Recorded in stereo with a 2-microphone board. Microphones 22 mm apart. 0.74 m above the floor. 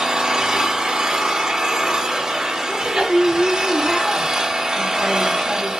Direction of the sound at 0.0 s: 25° right (ahead or behind).